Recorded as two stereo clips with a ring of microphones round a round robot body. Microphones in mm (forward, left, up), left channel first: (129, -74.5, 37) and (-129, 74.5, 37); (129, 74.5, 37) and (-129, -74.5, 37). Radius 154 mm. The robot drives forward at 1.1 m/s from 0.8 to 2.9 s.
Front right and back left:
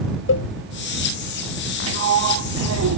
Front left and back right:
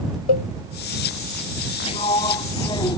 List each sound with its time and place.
0.3 s a cowbell: 20° left
1.9 s a sliding door: 100° left; by 3.0 s 110° left